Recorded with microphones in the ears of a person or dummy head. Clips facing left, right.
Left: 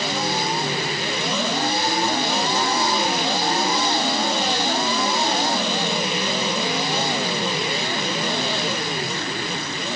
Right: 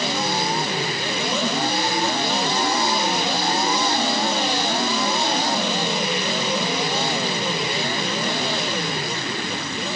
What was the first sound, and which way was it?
Only background noise.